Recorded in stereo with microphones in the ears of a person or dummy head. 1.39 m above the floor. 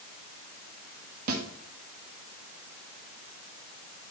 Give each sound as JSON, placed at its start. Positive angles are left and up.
{"t": 1.3, "sound": "a snare drum", "side_deg": -50, "distance_m": 1.8}